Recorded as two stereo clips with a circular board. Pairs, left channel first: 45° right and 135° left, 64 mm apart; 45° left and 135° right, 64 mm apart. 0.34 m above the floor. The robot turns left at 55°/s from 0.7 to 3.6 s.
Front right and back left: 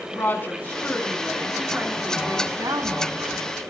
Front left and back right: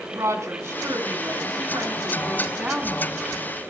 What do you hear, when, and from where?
0.1 s a woman speaking: 100° right, 2.5 m; by 3.4 s 110° left, 2.5 m